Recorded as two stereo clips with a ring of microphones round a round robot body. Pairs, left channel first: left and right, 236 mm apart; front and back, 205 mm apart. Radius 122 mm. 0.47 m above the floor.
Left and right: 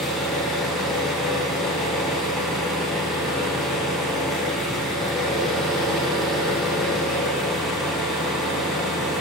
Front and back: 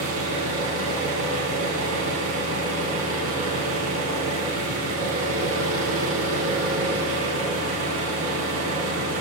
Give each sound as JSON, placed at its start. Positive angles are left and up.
{"t": 0.0, "sound": "an engine running", "azimuth_deg": 180, "distance_m": 4.5}